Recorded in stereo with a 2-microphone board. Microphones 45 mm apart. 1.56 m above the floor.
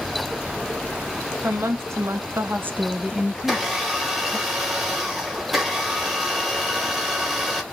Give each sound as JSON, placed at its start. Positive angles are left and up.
{"t": 1.4, "sound": "a woman speaking", "side_deg": -80, "distance_m": 1.2}
{"t": 3.4, "sound": "a blender", "side_deg": -5, "distance_m": 1.3}